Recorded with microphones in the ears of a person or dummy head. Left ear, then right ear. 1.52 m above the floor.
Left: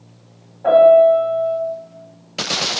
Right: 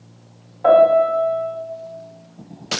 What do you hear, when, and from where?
0.6 s a piano: 75° right (ahead or behind), 1.6 m